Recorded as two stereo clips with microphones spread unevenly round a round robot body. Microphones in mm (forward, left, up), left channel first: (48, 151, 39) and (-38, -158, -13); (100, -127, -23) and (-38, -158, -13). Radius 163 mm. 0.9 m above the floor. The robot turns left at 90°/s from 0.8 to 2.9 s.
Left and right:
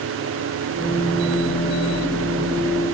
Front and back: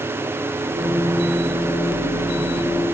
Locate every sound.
Only background noise.